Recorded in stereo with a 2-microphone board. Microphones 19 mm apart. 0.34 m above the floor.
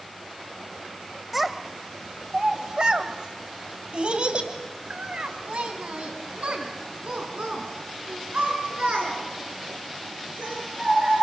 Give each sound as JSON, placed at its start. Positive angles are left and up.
{"t": 1.3, "sound": "a child speaking", "side_deg": -10, "distance_m": 1.4}